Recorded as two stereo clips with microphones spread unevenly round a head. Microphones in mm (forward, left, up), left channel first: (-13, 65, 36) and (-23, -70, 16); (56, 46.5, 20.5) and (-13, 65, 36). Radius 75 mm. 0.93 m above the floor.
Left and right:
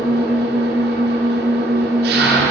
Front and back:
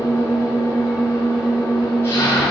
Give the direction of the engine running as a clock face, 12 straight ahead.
3 o'clock.